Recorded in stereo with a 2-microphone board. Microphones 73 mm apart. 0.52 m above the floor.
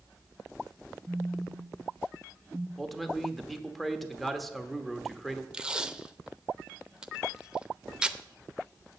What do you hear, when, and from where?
1.1 s a phone buzzing: 10° left (ahead or behind), 1.9 m
2.8 s a man speaking: centre (ahead or behind), 1.1 m
5.5 s tape being pulled: 10° right (ahead or behind), 0.6 m